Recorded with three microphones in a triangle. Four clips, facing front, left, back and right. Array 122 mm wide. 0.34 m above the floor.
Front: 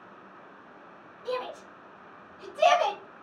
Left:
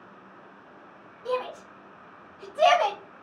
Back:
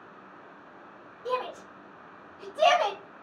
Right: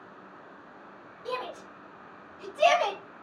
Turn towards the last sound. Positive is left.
turn(degrees=110)